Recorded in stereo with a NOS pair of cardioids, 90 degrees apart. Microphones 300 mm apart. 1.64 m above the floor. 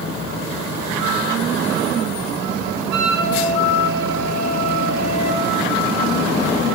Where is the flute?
65° right, 2.0 m.